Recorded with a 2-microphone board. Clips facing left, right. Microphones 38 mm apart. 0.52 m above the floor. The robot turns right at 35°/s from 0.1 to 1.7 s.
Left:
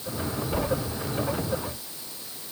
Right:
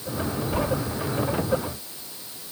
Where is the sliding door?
65° right (ahead or behind), 3 m; by 0.7 s 70° right (ahead or behind), 3 m.